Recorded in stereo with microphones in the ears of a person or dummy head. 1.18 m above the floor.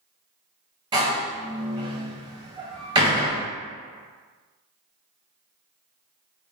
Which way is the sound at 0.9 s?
20° right (ahead or behind).